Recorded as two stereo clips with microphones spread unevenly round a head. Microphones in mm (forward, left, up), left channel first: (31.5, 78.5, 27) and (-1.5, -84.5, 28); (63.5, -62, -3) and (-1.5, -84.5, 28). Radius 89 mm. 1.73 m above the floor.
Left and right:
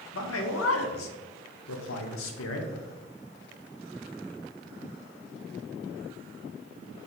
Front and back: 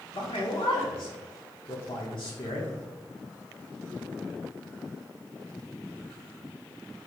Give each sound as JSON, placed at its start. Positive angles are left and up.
{"t": 0.1, "sound": "a man speaking", "azimuth_deg": 80, "distance_m": 0.6}